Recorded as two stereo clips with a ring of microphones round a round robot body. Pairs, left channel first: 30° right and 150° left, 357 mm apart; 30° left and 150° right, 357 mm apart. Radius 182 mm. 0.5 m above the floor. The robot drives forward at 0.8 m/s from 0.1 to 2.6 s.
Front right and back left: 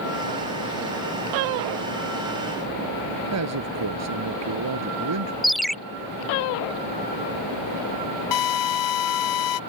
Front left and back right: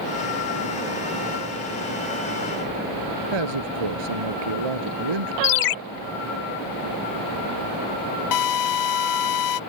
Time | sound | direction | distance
3.3 | a man speaking | 165° right | ?
5.4 | a ringtone | 60° left | ?
8.3 | a drill | straight ahead | ?